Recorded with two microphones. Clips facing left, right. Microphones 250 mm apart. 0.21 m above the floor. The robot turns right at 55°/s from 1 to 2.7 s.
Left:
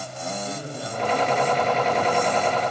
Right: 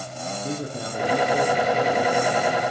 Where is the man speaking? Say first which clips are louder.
Right 3 dB; 60° right, 6 m; by 2.7 s 35° left, 6 m.